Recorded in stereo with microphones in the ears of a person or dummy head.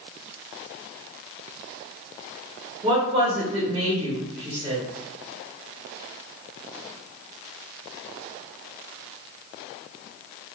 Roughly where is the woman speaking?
Right.